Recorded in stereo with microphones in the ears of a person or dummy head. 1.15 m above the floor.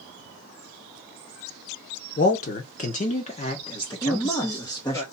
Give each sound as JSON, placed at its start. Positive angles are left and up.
{"t": 2.2, "sound": "a man speaking", "side_deg": 40, "distance_m": 0.9}
{"t": 4.0, "sound": "a man speaking", "side_deg": 15, "distance_m": 1.0}